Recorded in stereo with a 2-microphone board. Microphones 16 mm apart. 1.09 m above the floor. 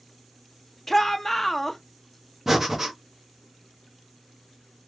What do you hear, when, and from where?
0.9 s a shout: 15° left (ahead or behind), 0.5 m
2.5 s breathing: 20° right (ahead or behind), 1.2 m